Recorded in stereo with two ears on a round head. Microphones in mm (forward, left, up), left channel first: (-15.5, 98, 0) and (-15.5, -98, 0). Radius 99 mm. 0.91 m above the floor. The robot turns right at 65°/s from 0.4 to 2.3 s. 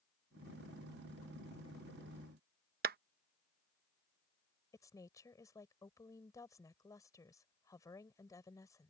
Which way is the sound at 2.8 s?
45° right (ahead or behind).